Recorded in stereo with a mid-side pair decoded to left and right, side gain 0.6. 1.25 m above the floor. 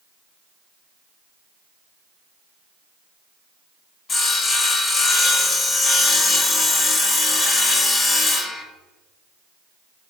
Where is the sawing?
40° left, 1.8 m.